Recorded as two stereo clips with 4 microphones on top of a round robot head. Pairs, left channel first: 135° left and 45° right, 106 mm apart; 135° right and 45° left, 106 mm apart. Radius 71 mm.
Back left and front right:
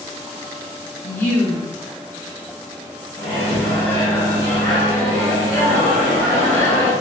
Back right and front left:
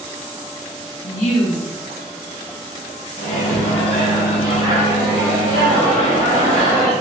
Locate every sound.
1.0 s a woman speaking: 155° right, 1.3 m
3.2 s a microwave: 155° right, 2.0 m